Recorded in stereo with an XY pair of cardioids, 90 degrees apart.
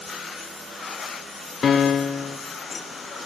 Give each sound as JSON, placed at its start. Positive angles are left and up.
{"t": 1.6, "sound": "a piano", "azimuth_deg": 55, "distance_m": 0.5}